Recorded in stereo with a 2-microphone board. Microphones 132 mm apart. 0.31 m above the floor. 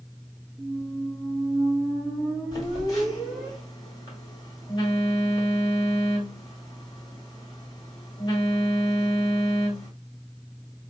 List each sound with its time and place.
0.6 s a squeak: centre (ahead or behind), 1.8 m
2.5 s a phone buzzing: 30° left (ahead or behind), 1.4 m